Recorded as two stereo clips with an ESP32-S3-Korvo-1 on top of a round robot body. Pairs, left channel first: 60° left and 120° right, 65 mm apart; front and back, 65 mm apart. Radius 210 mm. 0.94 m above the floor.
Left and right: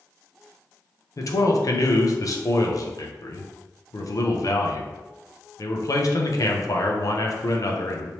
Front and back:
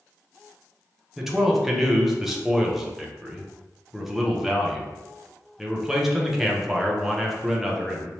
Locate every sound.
1.2 s a man speaking: 95° left, 0.7 m